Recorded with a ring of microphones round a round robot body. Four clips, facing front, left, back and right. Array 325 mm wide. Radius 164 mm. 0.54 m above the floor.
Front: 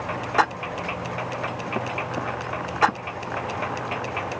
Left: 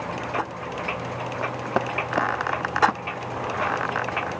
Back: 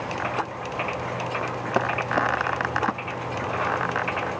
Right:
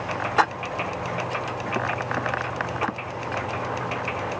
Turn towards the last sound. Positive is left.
No sound to turn to.